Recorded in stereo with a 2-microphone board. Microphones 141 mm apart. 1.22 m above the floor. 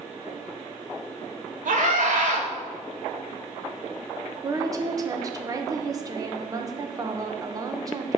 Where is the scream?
70° right (ahead or behind), 3 m.